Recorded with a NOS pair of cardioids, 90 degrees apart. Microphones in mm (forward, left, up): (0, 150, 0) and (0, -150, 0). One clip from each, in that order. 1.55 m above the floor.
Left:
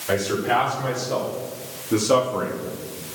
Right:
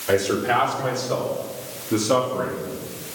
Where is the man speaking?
25° right, 5.5 m; by 2.7 s 20° left, 3 m.